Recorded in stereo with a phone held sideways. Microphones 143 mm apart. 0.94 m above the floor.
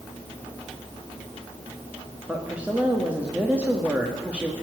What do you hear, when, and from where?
2.3 s a woman speaking: 10° right (ahead or behind), 1.6 m